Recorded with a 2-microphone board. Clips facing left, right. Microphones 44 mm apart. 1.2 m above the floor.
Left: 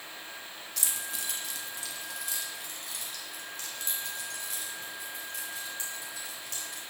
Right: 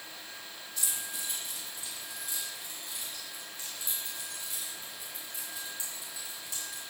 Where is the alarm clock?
I don't hear an alarm clock.